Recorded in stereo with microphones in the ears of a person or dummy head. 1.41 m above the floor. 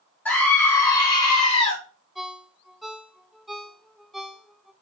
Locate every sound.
0.2 s a scream: 10° left (ahead or behind), 1.8 m; by 1.8 s 35° left (ahead or behind), 1.7 m
2.1 s a ringtone: centre (ahead or behind), 0.6 m